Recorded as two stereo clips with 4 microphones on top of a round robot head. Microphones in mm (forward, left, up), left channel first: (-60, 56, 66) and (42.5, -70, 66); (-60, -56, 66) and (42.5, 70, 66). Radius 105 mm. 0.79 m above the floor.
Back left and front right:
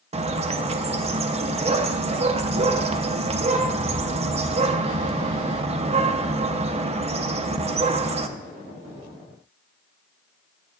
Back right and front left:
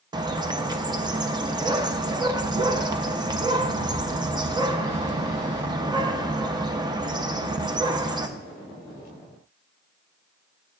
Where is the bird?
10° right, 0.6 m.